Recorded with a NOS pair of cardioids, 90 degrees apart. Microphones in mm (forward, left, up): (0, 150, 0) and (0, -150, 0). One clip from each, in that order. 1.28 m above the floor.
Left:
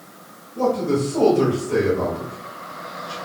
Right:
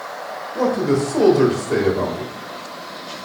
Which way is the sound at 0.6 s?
50° right.